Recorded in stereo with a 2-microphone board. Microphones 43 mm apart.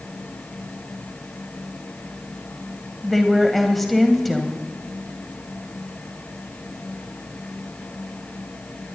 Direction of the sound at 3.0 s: 5° left (ahead or behind).